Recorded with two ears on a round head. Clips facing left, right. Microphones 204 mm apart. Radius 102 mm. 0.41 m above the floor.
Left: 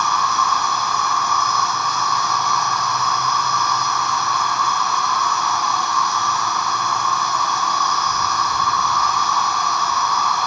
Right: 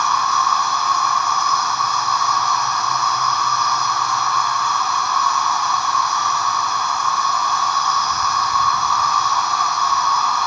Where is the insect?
60° left (ahead or behind), 2.0 m.